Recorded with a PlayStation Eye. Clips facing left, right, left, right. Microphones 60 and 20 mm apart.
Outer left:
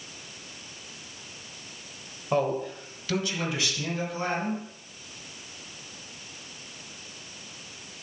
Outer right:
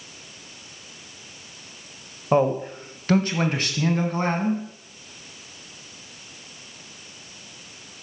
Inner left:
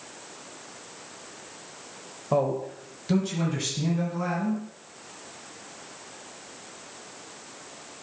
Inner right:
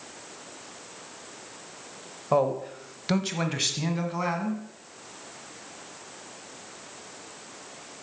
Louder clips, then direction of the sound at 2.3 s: Outer right 6 dB, inner right 1 dB; 20° right (ahead or behind).